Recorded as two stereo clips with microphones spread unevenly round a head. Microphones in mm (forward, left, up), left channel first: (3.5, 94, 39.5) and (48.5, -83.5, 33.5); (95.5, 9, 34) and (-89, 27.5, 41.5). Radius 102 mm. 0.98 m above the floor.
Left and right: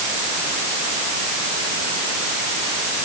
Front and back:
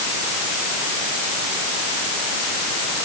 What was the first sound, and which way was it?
Only background noise.